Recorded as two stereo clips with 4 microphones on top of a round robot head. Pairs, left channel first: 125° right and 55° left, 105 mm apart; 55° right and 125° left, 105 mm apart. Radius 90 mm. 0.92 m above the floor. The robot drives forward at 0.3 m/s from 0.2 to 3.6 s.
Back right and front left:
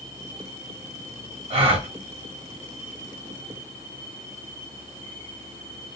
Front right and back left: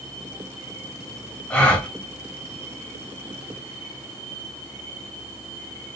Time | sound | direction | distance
1.5 | a gasp | 15° left | 1.1 m